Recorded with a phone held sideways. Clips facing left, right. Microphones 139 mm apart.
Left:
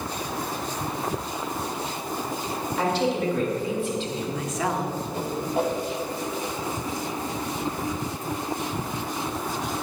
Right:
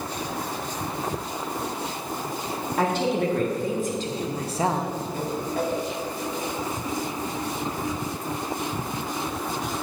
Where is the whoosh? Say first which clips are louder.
Left 2 dB; 25° left (ahead or behind), 1.5 m.